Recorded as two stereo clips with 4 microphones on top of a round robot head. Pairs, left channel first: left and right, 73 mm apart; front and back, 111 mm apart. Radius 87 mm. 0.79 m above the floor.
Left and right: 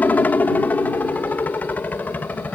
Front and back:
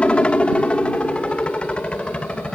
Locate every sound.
0.0 s a helicopter: 65° left